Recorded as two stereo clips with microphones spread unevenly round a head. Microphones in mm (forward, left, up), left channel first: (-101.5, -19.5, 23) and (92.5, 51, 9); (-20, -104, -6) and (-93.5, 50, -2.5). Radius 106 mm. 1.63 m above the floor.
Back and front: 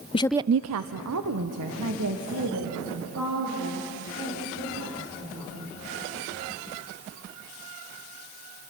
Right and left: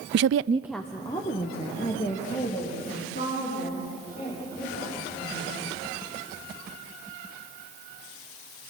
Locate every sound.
0.1 s a woman speaking: 135° left, 0.6 m; by 5.6 s 5° right, 8.5 m